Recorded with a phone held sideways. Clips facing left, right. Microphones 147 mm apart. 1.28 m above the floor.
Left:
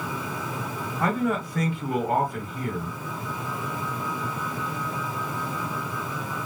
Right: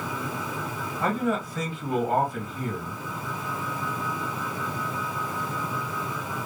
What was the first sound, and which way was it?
A man speaking, 65° left (ahead or behind).